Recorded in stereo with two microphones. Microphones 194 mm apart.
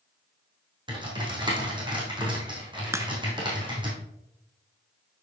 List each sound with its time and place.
0.9 s typing on a keyboard: 25° right (ahead or behind), 3 m
2.9 s a crack: 15° right (ahead or behind), 0.6 m